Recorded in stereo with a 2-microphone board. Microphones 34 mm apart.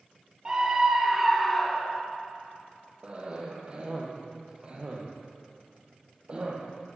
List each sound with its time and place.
0.5 s a scream: 20° right (ahead or behind), 3.5 m; by 2.0 s 15° left (ahead or behind), 2.5 m
3.0 s a cough: 35° right (ahead or behind), 5.5 m